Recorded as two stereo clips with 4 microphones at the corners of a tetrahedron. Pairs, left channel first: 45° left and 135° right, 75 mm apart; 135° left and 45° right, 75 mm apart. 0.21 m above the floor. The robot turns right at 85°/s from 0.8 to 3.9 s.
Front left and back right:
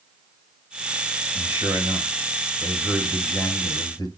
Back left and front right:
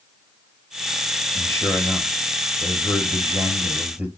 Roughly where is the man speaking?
Behind.